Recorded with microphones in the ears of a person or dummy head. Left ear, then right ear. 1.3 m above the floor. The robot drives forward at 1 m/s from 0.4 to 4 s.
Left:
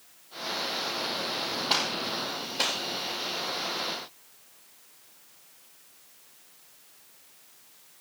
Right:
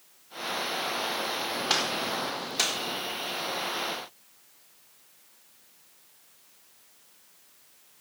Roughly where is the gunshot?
Right.